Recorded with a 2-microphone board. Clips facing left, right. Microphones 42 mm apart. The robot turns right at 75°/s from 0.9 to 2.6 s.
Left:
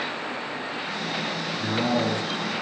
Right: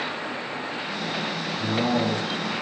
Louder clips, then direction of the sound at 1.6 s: Right 1 dB; 5° left.